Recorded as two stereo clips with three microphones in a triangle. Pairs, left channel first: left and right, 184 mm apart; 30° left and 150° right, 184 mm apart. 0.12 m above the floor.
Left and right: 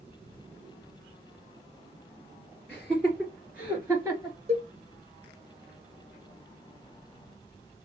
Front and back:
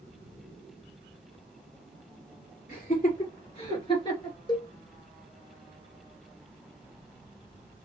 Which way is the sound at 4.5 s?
40° right.